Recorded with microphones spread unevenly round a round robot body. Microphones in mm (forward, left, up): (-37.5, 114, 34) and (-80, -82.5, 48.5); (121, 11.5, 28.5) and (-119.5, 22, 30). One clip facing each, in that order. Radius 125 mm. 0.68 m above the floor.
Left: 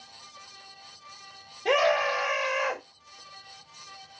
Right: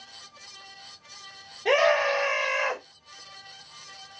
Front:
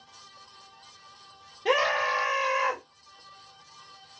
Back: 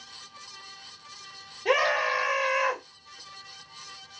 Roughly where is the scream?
Ahead.